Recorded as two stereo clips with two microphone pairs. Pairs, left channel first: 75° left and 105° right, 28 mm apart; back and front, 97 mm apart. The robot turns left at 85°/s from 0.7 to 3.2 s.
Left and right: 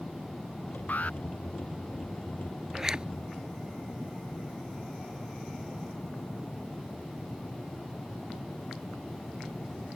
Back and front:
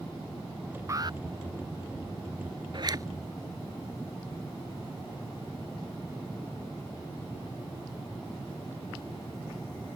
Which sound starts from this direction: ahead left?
An alarm, at 0.9 s.